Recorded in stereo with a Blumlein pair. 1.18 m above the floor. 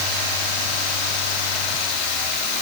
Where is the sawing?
I don't hear sawing.